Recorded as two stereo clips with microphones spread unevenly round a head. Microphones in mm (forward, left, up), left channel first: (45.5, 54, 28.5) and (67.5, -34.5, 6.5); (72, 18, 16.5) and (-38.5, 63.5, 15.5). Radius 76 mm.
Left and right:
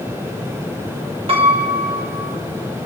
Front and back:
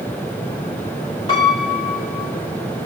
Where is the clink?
No clink in this recording.